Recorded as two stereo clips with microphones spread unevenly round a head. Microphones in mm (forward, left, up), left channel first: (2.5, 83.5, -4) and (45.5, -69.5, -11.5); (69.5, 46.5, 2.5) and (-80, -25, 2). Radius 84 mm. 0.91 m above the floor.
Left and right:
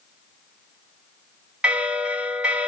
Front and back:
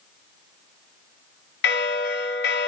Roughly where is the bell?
Ahead.